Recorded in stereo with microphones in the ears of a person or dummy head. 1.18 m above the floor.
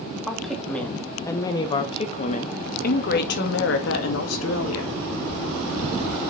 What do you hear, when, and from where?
0.3 s a woman speaking: 5° left (ahead or behind), 2.5 m; by 4.9 s 80° left, 2.5 m